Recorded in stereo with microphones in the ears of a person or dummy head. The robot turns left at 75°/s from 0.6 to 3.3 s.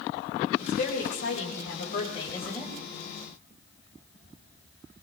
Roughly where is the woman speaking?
Behind left.